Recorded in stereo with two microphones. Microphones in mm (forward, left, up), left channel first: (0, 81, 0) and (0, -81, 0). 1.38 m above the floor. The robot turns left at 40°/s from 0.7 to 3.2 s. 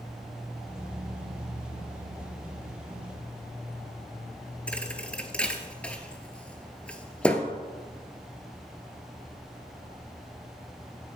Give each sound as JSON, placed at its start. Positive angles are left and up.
{"t": 4.7, "sound": "a thud", "side_deg": 5, "distance_m": 1.4}